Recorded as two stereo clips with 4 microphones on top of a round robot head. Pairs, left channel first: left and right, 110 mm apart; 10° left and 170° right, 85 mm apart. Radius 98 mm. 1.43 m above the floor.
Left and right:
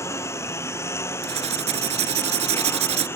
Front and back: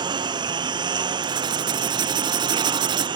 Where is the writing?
125° right.